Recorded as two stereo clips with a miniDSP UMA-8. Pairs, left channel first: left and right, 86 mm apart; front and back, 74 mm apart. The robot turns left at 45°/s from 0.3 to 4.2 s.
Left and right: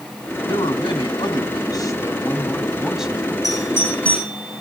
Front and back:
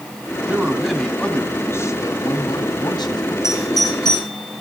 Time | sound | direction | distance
0.5 | a man speaking | 110° left | 3 m
3.4 | a doorbell | 45° left | 6 m